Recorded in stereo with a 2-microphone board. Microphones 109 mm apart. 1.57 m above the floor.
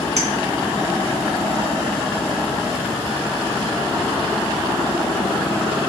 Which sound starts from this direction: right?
A clink, at 0.2 s.